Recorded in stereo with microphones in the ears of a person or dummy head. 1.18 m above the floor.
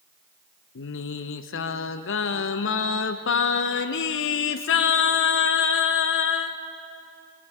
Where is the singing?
60° left (ahead or behind), 1.0 m.